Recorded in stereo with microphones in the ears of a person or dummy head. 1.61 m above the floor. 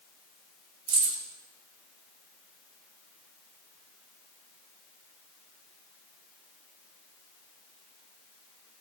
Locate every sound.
0.9 s keys jangling: 60° right (ahead or behind), 2.5 m